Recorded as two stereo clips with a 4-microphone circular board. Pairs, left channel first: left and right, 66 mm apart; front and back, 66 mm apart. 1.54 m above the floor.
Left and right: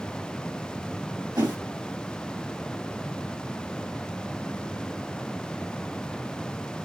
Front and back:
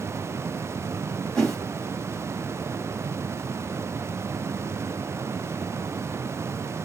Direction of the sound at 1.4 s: 80° right.